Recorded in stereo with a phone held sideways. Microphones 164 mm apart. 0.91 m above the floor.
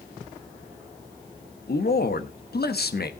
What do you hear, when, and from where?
1.7 s a man speaking: 65° left (ahead or behind), 1.1 m